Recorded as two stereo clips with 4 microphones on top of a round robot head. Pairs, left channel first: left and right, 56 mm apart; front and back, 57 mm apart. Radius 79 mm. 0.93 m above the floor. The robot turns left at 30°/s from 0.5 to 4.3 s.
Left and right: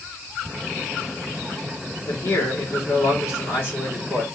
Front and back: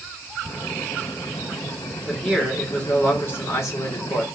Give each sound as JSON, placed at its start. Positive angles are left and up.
{"t": 2.1, "sound": "a man speaking", "azimuth_deg": 85, "distance_m": 2.0}